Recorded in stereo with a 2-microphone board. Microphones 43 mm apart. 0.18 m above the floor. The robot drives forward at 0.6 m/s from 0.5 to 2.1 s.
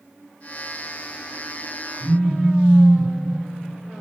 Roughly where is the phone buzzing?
Right.